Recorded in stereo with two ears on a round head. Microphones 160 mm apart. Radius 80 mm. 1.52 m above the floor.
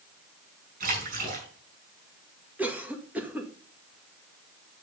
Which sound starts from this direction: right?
A splash, at 0.8 s.